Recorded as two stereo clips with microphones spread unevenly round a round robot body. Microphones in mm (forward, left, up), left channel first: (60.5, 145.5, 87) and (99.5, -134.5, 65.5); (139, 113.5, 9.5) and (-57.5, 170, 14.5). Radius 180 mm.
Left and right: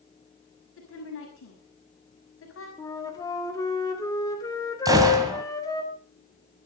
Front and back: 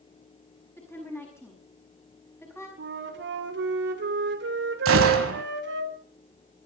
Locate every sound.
0.8 s a woman speaking: 60° left, 6 m
2.8 s a flute: 175° left, 2 m
4.8 s a gunshot: 160° right, 1.4 m